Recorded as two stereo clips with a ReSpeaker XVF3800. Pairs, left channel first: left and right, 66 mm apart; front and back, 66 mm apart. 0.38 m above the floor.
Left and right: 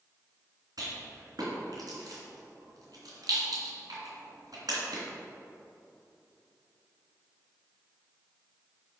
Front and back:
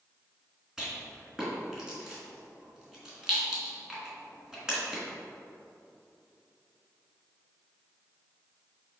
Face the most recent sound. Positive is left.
turn(degrees=-100)